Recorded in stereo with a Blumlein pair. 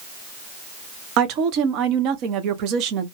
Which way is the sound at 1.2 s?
40° right.